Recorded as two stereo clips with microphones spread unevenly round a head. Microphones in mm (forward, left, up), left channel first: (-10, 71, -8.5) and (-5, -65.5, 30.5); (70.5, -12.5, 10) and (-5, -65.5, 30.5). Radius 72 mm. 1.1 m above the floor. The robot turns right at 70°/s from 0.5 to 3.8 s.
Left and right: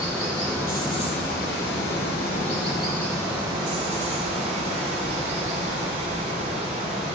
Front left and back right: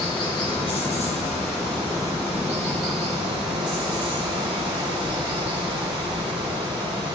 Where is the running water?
Straight ahead, 3 m; by 7.2 s 130° right, 3 m.